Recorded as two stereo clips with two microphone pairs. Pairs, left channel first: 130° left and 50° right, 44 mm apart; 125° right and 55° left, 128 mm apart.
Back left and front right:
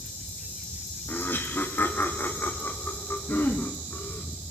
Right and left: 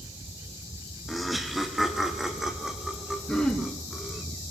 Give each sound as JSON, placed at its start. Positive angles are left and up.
{"t": 1.1, "sound": "laughter", "azimuth_deg": 150, "distance_m": 2.0}
{"t": 3.3, "sound": "throat clearing", "azimuth_deg": 155, "distance_m": 3.5}